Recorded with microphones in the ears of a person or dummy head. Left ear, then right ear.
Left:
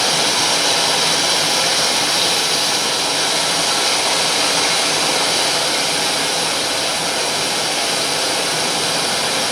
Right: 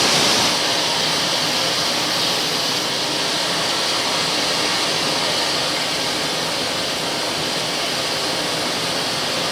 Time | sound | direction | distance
0.0 | running water | 65° left (ahead or behind) | 6 m